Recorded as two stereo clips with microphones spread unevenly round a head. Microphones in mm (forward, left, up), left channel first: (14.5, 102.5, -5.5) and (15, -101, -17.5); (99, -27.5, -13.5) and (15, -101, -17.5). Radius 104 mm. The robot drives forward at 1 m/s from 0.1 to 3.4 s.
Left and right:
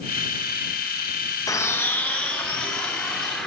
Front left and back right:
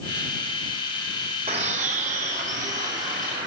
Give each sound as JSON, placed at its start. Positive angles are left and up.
{"t": 1.5, "sound": "a bird", "azimuth_deg": 165, "distance_m": 0.6}